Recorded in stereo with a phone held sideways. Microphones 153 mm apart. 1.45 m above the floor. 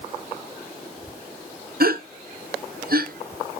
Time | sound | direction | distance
1.8 | a gasp | 70° right (ahead or behind) | 0.6 m